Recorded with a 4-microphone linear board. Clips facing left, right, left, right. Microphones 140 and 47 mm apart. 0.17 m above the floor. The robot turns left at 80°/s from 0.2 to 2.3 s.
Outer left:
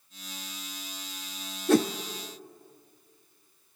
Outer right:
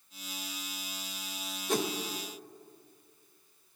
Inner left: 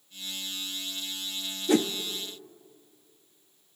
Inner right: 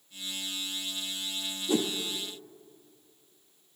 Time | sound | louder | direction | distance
1.7 | a whoosh | outer left 9 dB, inner left 4 dB | 75° left (ahead or behind) | 0.6 m